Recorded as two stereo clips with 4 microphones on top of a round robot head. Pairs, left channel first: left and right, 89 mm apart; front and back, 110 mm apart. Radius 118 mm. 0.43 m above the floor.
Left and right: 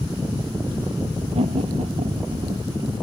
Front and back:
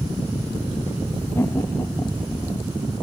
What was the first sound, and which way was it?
Laughter, 75° right.